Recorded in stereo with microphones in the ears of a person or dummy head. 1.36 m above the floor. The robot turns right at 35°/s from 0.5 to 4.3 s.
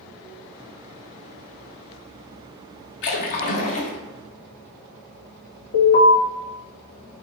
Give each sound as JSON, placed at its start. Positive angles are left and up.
{"t": 3.0, "sound": "a splash", "azimuth_deg": 110, "distance_m": 0.7}
{"t": 5.7, "sound": "an alarm", "side_deg": 50, "distance_m": 1.4}